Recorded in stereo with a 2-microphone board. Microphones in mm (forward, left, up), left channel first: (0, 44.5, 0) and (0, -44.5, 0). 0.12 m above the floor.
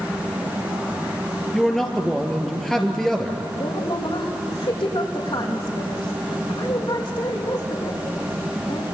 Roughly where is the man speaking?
Centre.